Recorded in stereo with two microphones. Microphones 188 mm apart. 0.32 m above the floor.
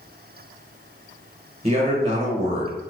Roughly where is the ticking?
I don't hear ticking.